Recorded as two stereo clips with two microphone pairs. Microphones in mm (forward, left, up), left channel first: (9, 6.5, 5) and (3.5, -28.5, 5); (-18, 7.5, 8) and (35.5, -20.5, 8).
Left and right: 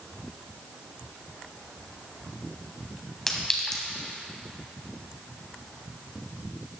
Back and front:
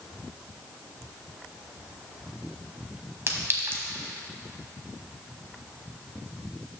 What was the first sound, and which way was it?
A clink, 5° left.